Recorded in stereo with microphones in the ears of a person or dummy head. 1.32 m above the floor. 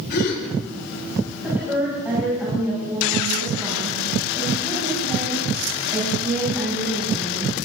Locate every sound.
0.1 s a gasp: 55° left (ahead or behind), 6.5 m
1.4 s a woman speaking: 5° right (ahead or behind), 8.5 m